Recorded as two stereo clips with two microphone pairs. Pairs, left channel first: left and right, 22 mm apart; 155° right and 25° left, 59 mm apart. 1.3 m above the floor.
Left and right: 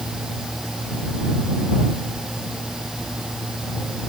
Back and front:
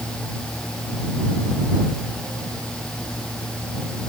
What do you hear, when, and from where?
Only background noise.